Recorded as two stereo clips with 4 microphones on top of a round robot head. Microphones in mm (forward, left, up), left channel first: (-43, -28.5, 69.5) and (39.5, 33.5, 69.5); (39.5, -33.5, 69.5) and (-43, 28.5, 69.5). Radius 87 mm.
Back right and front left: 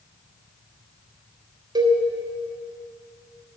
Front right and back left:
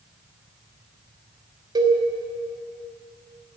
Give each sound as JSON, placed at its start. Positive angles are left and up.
{"t": 1.8, "sound": "a cowbell", "azimuth_deg": 90, "distance_m": 1.3}